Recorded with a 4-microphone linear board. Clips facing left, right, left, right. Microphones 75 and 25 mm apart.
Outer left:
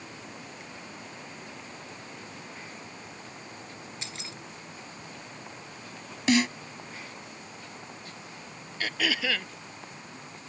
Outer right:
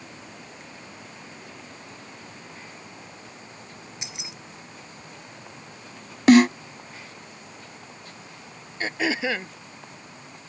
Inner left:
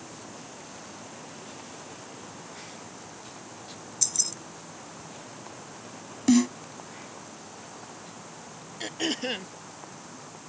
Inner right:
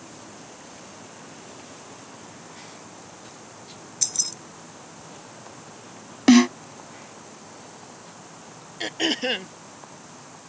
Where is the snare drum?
50° right (ahead or behind).